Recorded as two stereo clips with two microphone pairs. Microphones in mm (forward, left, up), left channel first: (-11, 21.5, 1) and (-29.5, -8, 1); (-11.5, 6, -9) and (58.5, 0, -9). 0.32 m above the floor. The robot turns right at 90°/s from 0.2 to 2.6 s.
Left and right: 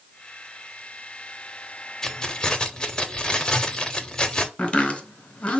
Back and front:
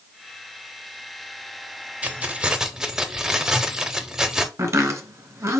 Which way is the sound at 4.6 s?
15° left.